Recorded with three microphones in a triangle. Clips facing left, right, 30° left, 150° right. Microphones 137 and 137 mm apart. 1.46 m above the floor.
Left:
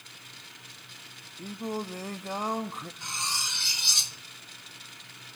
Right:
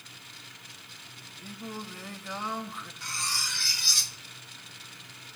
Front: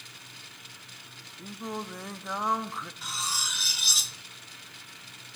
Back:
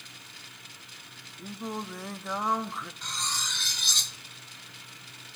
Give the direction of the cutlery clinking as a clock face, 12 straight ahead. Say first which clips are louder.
Even, front 1 dB; 9 o'clock.